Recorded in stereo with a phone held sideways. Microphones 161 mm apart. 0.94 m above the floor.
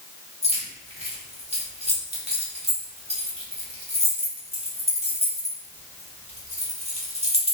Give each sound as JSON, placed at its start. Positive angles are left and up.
{"t": 0.4, "sound": "keys jangling", "side_deg": -35, "distance_m": 0.9}